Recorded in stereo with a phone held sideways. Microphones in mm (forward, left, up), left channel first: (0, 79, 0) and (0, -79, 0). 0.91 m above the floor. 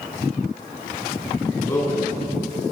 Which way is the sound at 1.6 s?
15° left (ahead or behind).